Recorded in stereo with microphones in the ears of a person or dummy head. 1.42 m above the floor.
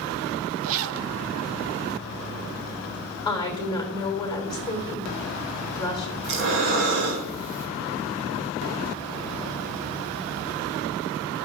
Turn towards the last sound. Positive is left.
turn(degrees=-65)  # may be behind; listen again after turning